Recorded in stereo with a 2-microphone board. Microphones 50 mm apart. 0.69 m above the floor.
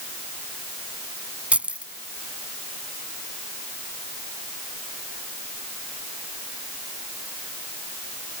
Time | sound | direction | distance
1.5 | keys jangling | 25° right (ahead or behind) | ?